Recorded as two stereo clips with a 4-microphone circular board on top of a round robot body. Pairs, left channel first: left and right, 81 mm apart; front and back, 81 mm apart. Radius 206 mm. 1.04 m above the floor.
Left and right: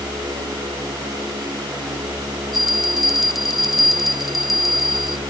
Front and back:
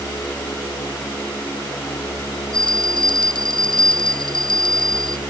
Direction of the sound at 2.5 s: Straight ahead.